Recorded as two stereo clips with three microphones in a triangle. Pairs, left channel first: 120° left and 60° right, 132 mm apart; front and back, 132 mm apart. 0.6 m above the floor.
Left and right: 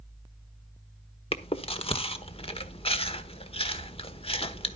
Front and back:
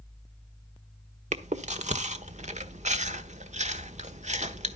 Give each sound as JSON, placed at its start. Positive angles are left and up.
{"t": 1.3, "sound": "chewing", "azimuth_deg": 160, "distance_m": 1.2}